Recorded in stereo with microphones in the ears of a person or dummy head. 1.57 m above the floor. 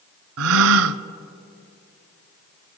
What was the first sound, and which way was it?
A gasp, 80° right.